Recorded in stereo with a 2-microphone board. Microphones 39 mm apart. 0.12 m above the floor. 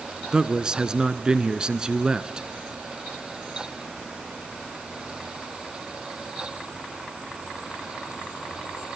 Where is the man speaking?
20° right (ahead or behind), 1.1 m.